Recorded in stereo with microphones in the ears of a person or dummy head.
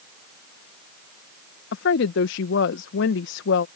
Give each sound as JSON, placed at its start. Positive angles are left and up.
{"t": 1.7, "sound": "a woman speaking", "side_deg": 75}